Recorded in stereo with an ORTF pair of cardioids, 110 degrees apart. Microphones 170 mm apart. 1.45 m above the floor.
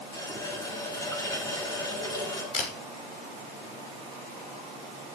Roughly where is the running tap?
Ahead.